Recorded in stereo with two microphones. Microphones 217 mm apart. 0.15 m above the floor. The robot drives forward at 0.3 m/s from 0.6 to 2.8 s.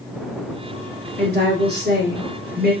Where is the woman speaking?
50° right (ahead or behind), 2.5 m.